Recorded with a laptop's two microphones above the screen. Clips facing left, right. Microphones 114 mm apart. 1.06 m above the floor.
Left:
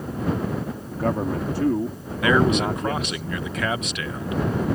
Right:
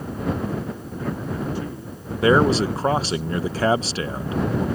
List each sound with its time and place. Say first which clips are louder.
0.9 s a man speaking: left 6 dB; 60° left (ahead or behind); by 3.2 s 75° left (ahead or behind)
2.2 s a man speaking: right 2 dB; 35° right (ahead or behind)